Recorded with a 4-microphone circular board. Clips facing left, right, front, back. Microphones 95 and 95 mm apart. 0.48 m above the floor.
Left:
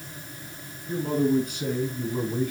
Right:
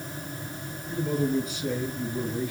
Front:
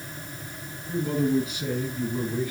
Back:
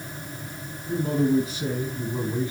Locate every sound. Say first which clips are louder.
0.9 s a man speaking: left 3 dB, back 2 dB; 130° left, 6 m; by 2.5 s 115° left, 5.5 m